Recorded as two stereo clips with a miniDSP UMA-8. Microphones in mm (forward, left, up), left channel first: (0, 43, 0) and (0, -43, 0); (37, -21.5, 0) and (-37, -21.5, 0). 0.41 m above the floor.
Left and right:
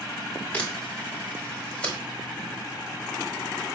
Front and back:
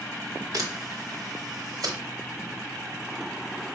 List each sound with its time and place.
0.5 s a camera shutter: 160° left, 1.1 m